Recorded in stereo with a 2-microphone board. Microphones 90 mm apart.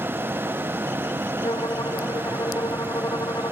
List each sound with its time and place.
1.4 s a violin: 50° left (ahead or behind)